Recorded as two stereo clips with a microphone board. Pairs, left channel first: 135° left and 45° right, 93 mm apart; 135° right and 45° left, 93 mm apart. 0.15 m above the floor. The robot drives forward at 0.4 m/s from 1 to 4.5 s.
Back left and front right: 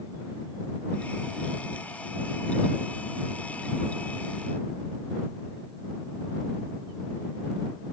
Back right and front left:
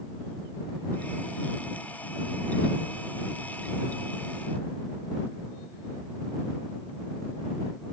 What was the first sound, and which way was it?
Only background noise.